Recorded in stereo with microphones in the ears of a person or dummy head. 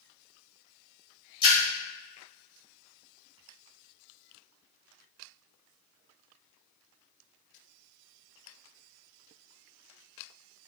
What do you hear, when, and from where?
1.4 s a splash: 25° left (ahead or behind), 1.4 m